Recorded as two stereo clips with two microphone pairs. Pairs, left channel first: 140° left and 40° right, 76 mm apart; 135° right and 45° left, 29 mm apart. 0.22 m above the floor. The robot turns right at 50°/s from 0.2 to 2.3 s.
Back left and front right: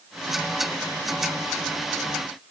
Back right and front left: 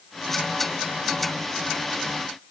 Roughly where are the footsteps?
No footsteps in this recording.